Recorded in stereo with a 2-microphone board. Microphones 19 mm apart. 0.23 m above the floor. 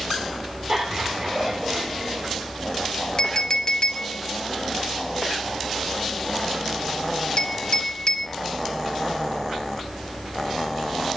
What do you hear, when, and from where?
0.7 s laughter: 25° right (ahead or behind), 7.5 m; by 2.4 s 15° right (ahead or behind), 7.5 m
3.2 s a clink: 40° left (ahead or behind), 2 m